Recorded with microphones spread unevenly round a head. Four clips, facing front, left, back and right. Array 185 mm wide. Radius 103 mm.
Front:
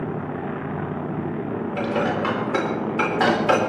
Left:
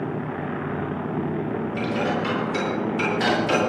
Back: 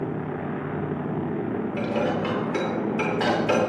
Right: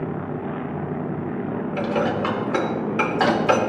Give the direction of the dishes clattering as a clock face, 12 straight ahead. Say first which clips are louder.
Right 4 dB, front 3 dB; 1 o'clock.